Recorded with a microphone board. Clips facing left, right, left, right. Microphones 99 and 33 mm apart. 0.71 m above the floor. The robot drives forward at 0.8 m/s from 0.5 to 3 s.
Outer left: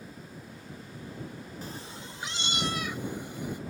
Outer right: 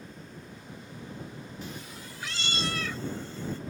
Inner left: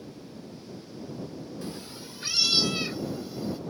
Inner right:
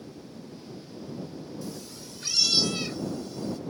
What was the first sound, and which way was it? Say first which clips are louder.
A cat meowing: even, inner left 1 dB; 40° left (ahead or behind).